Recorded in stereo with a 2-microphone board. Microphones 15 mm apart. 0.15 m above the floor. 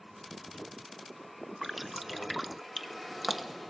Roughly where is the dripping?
Centre.